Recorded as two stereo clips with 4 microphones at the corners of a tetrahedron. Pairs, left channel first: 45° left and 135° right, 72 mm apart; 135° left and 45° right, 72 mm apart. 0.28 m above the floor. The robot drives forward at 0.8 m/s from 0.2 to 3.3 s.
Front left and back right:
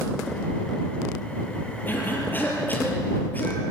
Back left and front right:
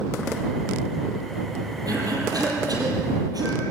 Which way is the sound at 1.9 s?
15° right.